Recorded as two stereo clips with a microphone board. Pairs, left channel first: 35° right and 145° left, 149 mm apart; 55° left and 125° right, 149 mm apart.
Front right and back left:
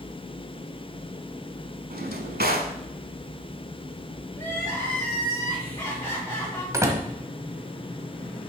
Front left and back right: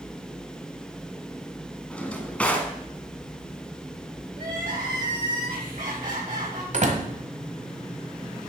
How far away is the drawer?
About 1.0 m.